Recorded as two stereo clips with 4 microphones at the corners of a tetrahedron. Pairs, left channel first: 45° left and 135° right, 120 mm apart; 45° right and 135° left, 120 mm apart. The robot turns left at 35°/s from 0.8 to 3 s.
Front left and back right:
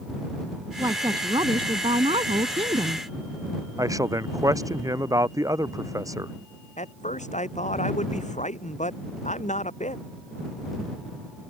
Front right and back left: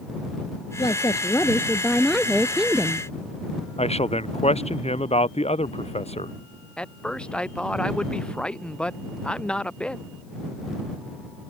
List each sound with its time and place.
0.8 s a woman speaking: 85° right; by 3.1 s 160° right
3.8 s a man speaking: 75° right
6.8 s a man speaking: 35° left